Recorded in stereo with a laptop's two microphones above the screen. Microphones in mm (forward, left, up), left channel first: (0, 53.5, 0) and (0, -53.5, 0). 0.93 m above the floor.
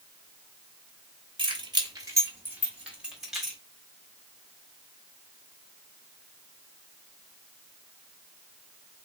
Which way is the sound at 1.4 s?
55° right (ahead or behind).